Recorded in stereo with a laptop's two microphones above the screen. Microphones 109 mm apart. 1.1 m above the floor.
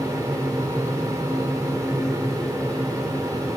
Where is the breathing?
I don't hear breathing.